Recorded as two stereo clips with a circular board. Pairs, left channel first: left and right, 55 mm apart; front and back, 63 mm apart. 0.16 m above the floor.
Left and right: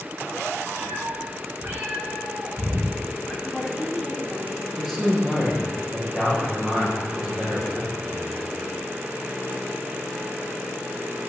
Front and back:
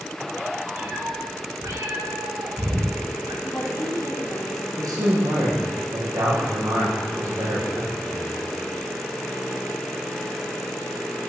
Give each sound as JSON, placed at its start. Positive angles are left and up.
{"t": 0.8, "sound": "a cat meowing", "azimuth_deg": -125, "distance_m": 3.5}
{"t": 3.4, "sound": "a woman speaking", "azimuth_deg": -10, "distance_m": 4.0}
{"t": 4.8, "sound": "a man speaking", "azimuth_deg": -170, "distance_m": 6.0}